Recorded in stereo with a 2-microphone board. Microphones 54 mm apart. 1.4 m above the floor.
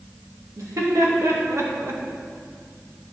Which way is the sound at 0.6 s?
85° right.